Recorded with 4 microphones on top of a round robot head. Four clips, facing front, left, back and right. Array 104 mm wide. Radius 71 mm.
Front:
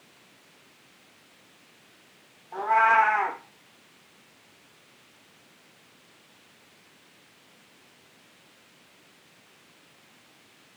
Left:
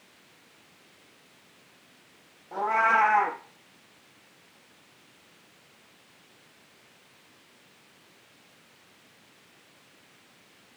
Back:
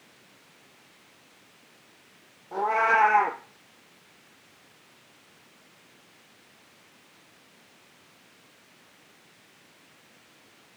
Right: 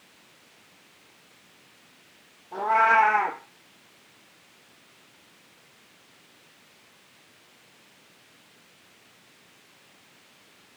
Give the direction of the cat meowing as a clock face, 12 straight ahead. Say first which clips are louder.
Right 3 dB, front 2 dB; 7 o'clock.